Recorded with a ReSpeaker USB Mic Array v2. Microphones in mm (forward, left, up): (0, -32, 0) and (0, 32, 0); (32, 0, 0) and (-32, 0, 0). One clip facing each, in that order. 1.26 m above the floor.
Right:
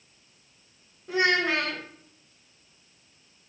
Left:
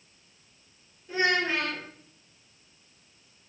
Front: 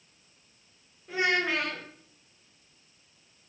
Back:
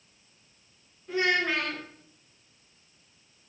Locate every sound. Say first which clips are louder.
1.1 s a child speaking: right 2 dB, back 1 dB; 85° right, 1.1 m